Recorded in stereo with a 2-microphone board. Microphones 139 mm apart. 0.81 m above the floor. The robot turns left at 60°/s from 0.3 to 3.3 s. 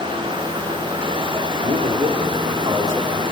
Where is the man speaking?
75° right, 1.8 m; by 3.2 s 175° right, 1.8 m.